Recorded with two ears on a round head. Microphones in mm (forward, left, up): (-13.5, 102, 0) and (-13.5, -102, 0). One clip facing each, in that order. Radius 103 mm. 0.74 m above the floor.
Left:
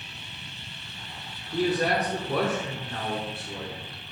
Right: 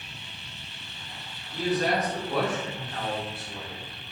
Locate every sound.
1.5 s a man speaking: 60° left (ahead or behind), 2.5 m; by 3.9 s 65° left (ahead or behind), 2.5 m